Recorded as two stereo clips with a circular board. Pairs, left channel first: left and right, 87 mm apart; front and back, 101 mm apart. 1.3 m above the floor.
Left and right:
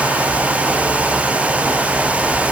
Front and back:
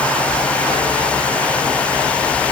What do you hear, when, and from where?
Only background noise.